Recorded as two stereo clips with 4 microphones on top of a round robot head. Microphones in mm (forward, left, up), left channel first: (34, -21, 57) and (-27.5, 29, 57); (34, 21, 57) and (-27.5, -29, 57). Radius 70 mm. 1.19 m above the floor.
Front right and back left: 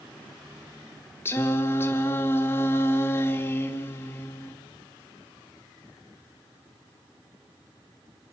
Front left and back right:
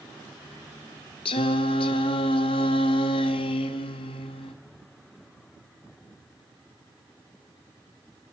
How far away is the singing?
About 1.2 m.